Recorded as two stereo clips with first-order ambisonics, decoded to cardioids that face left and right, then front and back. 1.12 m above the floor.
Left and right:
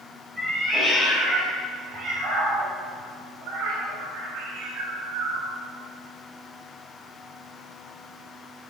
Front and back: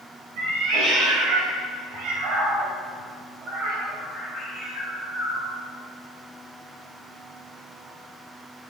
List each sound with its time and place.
0.4 s a cat meowing: 160° right, 2.5 m; by 5.5 s 85° right, 2 m